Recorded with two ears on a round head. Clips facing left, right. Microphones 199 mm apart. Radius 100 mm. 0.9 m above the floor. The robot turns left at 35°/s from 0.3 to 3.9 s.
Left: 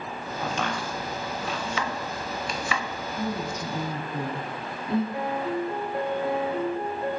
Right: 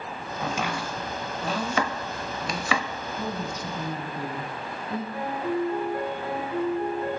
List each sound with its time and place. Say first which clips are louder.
0.4 s chopping: even; centre (ahead or behind), 1.1 m; by 2.9 s 60° right (ahead or behind), 1.1 m
3.2 s a woman speaking: left 2 dB; 35° left (ahead or behind), 3 m; by 5.0 s 60° left (ahead or behind), 3 m
5.1 s a piano: even; 20° left (ahead or behind), 3 m